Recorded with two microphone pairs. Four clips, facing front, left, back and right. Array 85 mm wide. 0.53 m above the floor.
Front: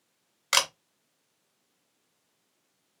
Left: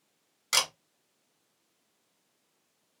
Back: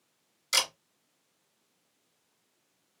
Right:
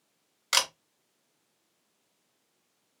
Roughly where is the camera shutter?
Ahead.